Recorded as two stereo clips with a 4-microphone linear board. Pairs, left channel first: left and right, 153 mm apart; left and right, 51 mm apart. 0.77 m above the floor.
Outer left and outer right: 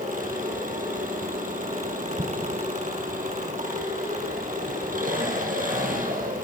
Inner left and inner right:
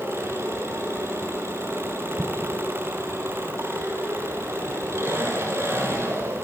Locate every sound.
0.0 s an engine running: 65° right (ahead or behind), 7 m
2.2 s an explosion: 45° right (ahead or behind), 1.0 m